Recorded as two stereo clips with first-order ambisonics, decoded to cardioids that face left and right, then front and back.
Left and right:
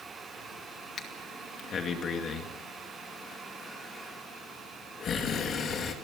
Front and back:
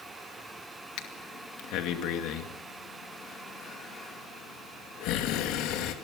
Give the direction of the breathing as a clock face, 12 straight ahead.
11 o'clock.